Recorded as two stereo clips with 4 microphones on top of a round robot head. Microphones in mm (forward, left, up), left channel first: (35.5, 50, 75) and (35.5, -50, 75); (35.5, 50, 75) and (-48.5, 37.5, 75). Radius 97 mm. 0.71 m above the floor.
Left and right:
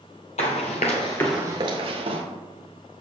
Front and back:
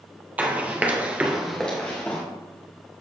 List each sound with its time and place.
0.4 s running footsteps: 120° left, 1.5 m; by 2.2 s 70° right, 1.4 m